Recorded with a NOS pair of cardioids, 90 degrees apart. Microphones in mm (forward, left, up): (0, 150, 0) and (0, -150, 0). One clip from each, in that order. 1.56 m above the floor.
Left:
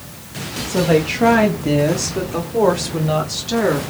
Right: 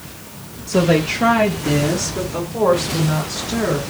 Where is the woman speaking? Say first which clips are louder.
Even; 20° right, 0.6 m; by 3.8 s 35° left, 2 m.